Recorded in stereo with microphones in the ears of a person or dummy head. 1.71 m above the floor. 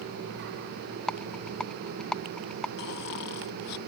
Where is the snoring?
60° left (ahead or behind).